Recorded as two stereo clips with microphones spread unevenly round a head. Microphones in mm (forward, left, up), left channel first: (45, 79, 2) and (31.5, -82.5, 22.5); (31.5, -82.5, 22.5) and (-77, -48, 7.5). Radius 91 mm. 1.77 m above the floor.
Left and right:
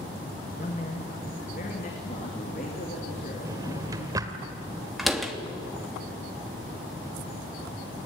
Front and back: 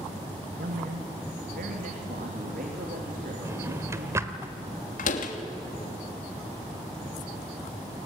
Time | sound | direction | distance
0.6 | a man speaking | 140° left | 2 m
3.5 | a drawer | 140° right | 1.7 m
5.0 | a door slam | 5° right | 2.5 m